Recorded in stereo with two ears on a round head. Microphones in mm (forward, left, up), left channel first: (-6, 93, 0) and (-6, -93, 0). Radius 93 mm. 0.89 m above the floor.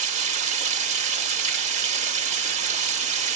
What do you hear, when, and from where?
0.0 s running water: 35° right (ahead or behind), 0.9 m